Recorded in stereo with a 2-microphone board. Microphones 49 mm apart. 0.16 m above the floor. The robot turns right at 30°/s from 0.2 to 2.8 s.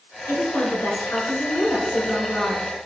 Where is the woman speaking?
85° left, 1.8 m; by 2.7 s 160° left, 1.8 m.